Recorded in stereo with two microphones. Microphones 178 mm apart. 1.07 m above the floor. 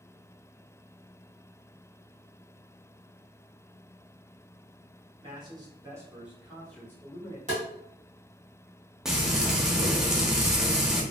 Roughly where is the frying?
Centre.